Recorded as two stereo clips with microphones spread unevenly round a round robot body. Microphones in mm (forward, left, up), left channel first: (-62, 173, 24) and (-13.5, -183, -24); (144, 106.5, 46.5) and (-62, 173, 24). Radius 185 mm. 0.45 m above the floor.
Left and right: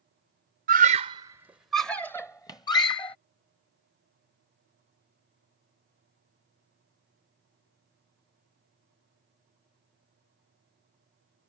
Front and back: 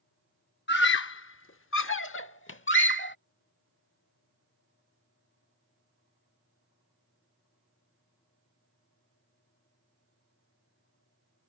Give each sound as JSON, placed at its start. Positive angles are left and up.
{"t": 0.7, "sound": "a scream", "azimuth_deg": -35}